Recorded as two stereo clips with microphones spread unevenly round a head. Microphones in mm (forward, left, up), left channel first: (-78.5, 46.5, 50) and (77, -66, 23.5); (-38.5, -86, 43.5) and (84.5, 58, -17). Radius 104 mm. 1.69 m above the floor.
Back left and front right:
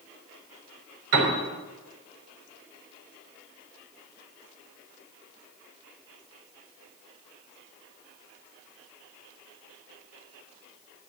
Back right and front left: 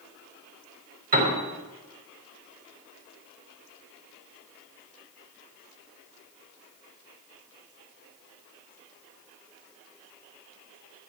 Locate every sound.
1.1 s a piano: straight ahead, 4 m